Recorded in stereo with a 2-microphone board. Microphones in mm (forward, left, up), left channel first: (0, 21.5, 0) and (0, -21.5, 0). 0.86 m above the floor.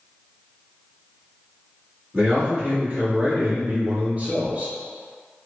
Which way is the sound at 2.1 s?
30° right (ahead or behind).